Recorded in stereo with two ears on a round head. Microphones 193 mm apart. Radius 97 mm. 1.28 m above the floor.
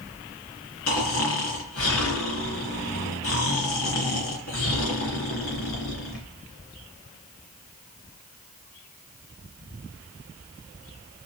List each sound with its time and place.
0.9 s snoring: 75° left (ahead or behind), 3.5 m